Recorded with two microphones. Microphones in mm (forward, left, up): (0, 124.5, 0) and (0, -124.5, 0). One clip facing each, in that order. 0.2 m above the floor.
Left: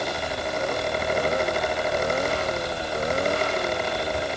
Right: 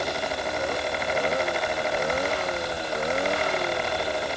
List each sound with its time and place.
Only background noise.